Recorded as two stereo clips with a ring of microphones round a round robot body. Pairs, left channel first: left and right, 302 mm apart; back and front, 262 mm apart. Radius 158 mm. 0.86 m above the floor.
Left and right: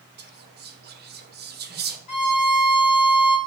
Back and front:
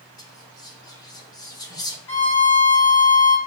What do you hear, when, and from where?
0.2 s whispering: 115° right, 1.1 m
2.1 s a violin: 115° left, 2 m